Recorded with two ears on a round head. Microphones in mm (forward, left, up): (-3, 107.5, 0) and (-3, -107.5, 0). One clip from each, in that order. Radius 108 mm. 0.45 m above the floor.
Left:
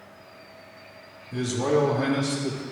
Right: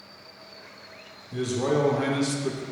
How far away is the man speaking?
About 0.9 m.